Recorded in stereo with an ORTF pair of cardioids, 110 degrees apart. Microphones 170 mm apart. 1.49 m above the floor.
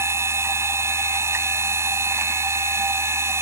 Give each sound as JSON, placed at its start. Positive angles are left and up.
{"t": 0.0, "sound": "a machine running", "azimuth_deg": -15}